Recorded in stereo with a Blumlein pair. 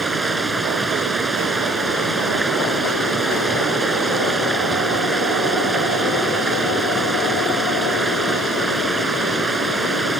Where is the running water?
10° right.